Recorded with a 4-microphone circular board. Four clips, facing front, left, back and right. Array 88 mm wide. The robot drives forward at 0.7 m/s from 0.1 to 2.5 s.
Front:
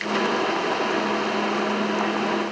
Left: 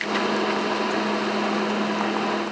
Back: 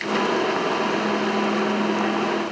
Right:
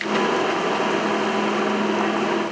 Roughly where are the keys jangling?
No keys jangling in this recording.